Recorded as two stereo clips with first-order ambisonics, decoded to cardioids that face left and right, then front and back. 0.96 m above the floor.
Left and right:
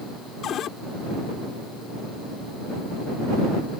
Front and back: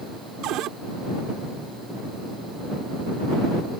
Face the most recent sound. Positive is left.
turn(degrees=140)